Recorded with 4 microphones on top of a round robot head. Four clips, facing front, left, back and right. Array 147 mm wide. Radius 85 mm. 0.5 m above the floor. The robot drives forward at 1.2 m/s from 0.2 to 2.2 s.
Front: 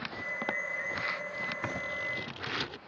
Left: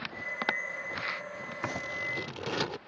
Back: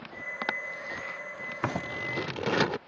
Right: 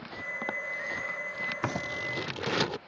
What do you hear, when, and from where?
1.6 s scissors: 150° right; by 2.8 s 170° right